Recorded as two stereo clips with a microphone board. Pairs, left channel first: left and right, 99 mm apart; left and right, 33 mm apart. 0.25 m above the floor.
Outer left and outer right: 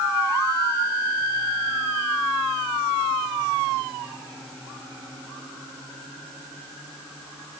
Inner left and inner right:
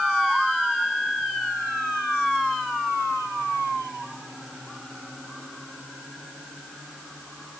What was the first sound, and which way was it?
Only background noise.